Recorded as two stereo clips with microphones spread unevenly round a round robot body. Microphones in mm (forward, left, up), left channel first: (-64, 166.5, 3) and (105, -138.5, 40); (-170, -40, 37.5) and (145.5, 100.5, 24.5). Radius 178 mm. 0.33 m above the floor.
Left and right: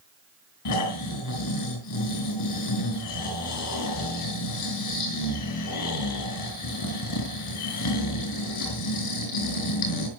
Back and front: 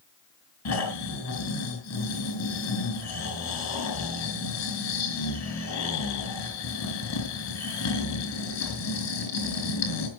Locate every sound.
0.7 s snoring: 160° left, 5 m